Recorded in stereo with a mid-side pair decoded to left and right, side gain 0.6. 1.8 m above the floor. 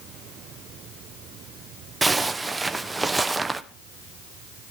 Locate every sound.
2.0 s a zipper: 15° right, 1.1 m